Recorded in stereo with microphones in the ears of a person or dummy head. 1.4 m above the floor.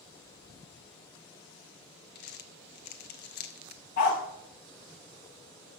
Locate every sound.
2.1 s crumpling: 50° left (ahead or behind), 0.6 m
4.0 s a dog barking: 40° left (ahead or behind), 1.2 m